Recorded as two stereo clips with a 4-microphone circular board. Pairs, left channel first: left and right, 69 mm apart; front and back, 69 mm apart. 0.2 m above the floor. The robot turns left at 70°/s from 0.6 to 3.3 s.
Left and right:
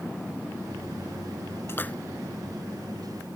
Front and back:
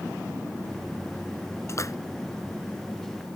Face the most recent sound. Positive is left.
turn(degrees=-70)